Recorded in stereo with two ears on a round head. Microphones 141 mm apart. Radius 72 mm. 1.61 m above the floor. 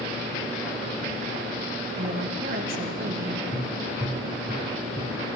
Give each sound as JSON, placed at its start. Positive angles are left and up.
{"t": 1.9, "sound": "a woman speaking", "side_deg": -65, "distance_m": 1.8}
{"t": 3.5, "sound": "tapping", "side_deg": 30, "distance_m": 4.0}